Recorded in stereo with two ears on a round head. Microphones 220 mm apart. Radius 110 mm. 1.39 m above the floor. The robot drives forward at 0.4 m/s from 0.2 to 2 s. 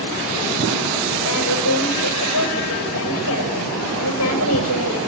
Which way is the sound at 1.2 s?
70° left (ahead or behind).